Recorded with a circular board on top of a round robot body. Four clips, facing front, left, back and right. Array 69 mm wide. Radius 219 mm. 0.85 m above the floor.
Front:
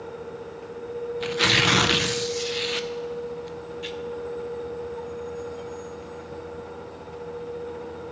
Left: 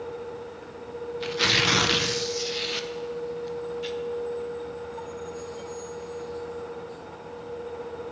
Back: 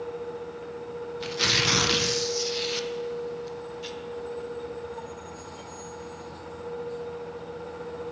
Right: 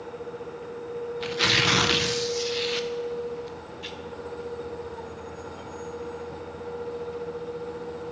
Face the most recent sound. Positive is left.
turn(degrees=-10)